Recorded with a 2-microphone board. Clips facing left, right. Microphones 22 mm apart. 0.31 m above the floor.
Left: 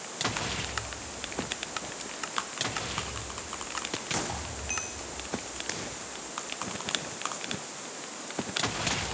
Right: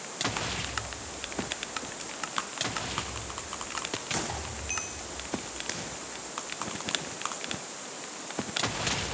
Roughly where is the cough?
I don't hear a cough.